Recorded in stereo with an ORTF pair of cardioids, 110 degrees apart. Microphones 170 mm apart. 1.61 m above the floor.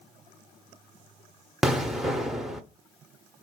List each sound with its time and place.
1.6 s an explosion: straight ahead, 0.6 m